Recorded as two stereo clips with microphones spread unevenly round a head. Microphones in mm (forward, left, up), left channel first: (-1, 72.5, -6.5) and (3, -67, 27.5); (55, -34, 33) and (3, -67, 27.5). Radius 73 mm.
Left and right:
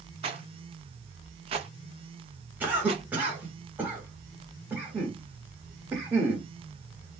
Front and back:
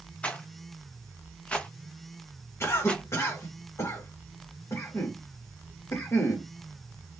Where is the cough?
Straight ahead, 1.2 m.